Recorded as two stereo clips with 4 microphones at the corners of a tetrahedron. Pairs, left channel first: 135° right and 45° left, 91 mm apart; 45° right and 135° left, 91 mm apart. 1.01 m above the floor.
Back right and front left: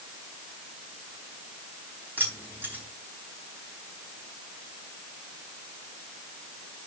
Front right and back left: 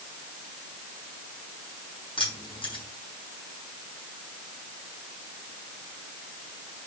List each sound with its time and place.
2.2 s keys jangling: 25° right, 4.5 m